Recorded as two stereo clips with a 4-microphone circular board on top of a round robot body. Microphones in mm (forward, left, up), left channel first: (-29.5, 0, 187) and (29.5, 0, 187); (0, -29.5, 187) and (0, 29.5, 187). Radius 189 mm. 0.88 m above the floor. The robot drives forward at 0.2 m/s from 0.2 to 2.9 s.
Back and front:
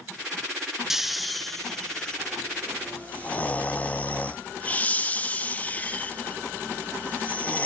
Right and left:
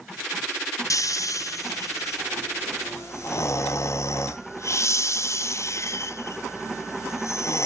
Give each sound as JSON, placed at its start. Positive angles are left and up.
{"t": 0.9, "sound": "snoring", "azimuth_deg": -85, "distance_m": 0.8}